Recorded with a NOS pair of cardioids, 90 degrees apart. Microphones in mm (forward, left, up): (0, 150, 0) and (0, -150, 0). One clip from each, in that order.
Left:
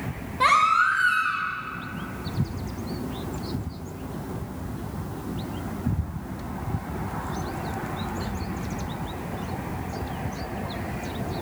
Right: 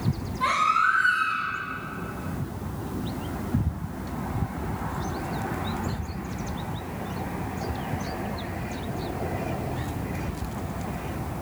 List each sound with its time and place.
0.4 s a baby crying: 70° left, 1.2 m